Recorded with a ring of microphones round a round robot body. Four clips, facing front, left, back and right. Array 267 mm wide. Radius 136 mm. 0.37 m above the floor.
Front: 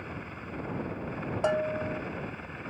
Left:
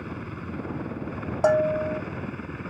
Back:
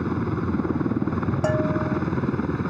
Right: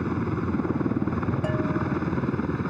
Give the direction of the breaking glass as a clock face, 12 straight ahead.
No breaking glass in this recording.